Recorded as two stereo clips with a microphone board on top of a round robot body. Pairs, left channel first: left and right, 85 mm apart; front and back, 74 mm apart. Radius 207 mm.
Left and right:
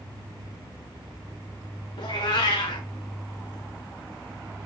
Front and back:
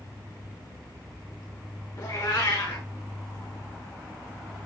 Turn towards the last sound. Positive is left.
turn(degrees=60)